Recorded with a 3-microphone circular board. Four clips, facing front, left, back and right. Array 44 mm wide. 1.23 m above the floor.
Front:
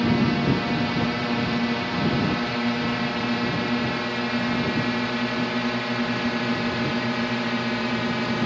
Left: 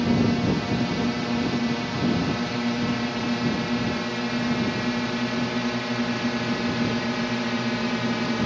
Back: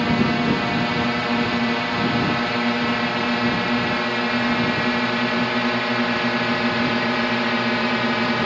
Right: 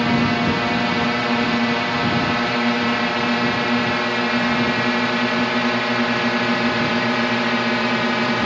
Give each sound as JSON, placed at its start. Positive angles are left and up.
{"t": 0.0, "sound": "a drone", "azimuth_deg": -115}